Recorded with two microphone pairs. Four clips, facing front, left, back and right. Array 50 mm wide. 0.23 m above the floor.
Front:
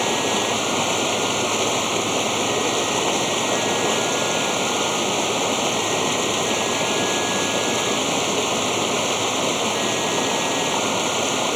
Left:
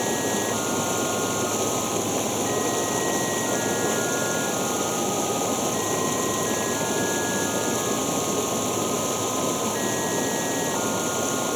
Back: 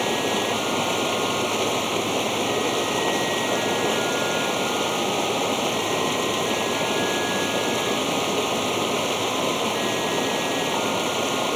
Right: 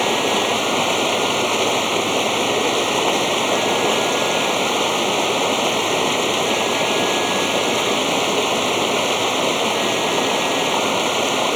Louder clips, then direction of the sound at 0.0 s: Right 7 dB, front 2 dB; 80° right.